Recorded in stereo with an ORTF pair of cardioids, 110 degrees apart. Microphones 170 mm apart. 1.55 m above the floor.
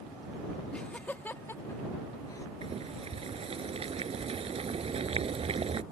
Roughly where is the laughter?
Ahead.